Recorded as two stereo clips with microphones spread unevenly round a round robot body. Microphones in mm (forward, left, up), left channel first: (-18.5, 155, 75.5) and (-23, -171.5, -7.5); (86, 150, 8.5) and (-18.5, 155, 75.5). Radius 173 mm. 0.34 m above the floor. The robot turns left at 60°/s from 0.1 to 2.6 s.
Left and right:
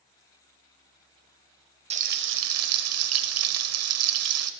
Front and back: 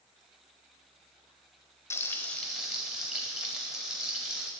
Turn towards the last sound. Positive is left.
turn(degrees=-75)